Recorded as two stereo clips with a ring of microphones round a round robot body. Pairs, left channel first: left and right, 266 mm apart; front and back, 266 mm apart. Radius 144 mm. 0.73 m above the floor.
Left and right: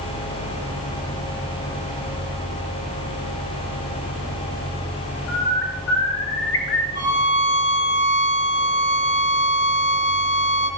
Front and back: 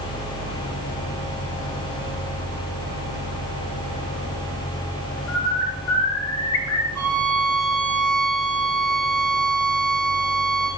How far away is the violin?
About 9 m.